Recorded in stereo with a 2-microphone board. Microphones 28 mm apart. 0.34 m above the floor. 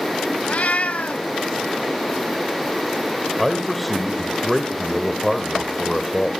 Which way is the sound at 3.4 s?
Centre (ahead or behind).